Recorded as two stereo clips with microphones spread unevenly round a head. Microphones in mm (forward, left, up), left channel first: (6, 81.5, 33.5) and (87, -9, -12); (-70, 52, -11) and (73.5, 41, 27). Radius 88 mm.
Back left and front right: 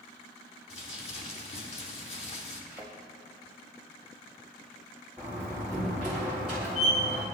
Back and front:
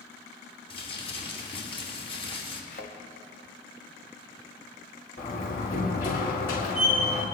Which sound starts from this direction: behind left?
Crumpling, at 0.7 s.